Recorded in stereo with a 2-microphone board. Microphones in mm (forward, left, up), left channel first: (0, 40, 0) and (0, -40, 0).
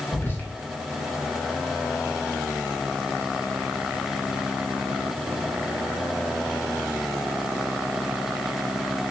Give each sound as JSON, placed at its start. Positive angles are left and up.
{"t": 0.1, "sound": "whispering", "side_deg": 25, "distance_m": 1.1}